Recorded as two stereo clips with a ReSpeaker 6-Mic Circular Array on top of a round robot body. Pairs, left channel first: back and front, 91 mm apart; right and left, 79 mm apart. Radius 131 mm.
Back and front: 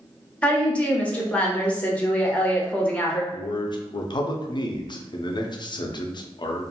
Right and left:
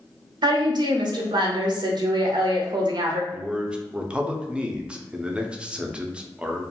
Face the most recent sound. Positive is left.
turn(degrees=165)